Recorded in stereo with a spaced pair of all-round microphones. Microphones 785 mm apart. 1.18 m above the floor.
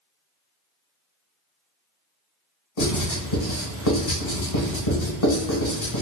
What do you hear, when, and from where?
2.8 s writing: 45° left (ahead or behind), 1.1 m